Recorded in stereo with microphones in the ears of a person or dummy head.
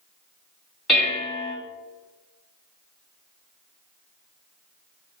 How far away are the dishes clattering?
About 1.7 m.